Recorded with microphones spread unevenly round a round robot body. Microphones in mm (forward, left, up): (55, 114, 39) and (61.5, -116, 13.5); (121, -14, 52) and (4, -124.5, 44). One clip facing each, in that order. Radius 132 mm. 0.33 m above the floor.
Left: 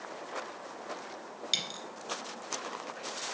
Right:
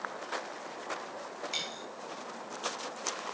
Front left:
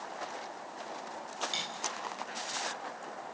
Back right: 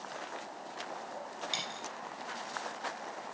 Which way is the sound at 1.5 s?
145° left.